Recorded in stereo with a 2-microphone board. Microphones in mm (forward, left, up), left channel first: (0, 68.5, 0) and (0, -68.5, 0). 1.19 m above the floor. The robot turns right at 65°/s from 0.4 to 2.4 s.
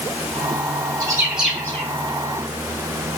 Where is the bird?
30° right (ahead or behind), 1.0 m; by 1.9 s 30° left (ahead or behind), 1.0 m.